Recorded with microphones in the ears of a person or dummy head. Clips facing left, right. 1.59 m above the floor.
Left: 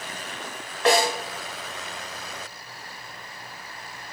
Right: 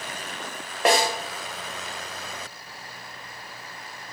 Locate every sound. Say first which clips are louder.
0.8 s a snare drum: left 1 dB; 15° right (ahead or behind), 0.7 m